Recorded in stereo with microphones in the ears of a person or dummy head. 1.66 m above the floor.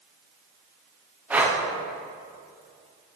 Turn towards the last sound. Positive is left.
turn(degrees=-10)  # may be behind; listen again after turning